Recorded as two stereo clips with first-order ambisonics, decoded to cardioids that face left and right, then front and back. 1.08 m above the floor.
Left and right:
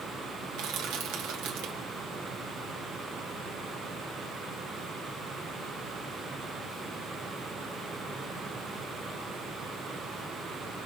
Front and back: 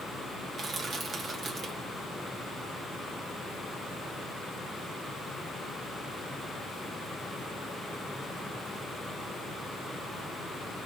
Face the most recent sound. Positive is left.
turn(degrees=-120)